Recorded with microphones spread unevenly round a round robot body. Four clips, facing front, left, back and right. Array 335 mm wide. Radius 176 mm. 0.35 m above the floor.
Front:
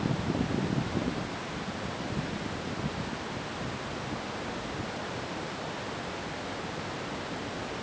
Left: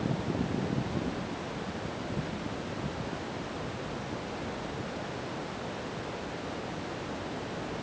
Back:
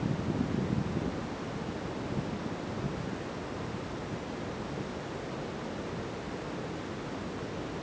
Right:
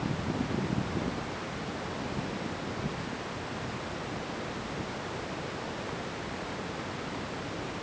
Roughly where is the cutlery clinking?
No cutlery clinking in this recording.